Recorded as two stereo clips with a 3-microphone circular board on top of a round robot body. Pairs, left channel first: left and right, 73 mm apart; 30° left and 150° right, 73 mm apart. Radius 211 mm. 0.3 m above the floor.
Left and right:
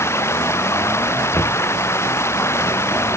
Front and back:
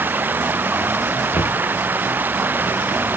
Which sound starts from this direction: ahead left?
Knocking, at 1.3 s.